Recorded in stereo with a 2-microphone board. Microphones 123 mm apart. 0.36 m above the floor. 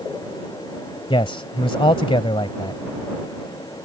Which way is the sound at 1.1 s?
45° left (ahead or behind).